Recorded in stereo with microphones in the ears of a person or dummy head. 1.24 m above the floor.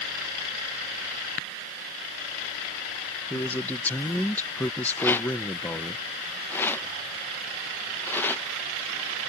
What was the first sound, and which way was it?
A man speaking, 10° left (ahead or behind).